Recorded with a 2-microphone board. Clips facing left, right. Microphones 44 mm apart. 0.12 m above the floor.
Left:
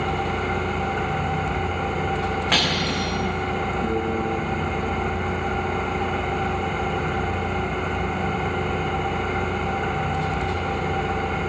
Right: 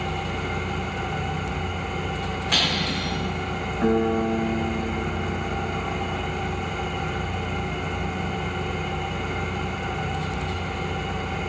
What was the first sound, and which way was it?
An engine running, 30° left (ahead or behind).